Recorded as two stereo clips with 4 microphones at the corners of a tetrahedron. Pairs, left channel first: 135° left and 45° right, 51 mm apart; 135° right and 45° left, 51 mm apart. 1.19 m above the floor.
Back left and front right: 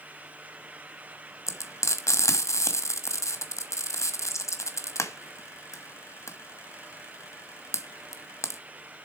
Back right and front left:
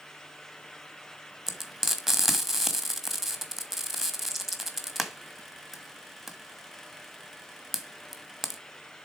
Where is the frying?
135° left, 1.2 m.